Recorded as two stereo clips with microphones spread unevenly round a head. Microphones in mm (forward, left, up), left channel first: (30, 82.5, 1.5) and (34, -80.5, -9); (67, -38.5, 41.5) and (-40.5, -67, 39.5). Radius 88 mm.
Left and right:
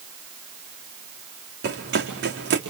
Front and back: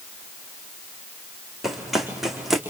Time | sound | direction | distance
1.6 | running footsteps | 75° right | 4.5 m